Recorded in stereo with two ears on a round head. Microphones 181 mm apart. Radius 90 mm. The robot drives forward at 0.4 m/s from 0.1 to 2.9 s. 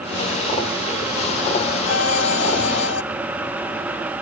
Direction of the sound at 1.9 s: 75° left (ahead or behind).